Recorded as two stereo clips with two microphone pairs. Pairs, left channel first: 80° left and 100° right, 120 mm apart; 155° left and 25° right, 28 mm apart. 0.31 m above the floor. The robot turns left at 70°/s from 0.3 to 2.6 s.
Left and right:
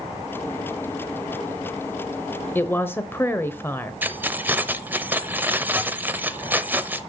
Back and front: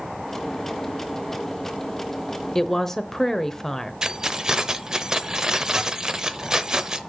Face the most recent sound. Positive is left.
turn(degrees=-45)